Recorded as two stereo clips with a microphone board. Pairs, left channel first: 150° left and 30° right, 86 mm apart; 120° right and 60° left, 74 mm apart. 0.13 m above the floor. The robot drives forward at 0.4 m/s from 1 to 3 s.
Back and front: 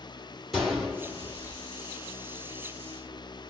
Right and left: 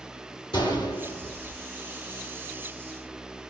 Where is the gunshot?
120° right, 2 m; by 1.6 s 125° right, 2 m.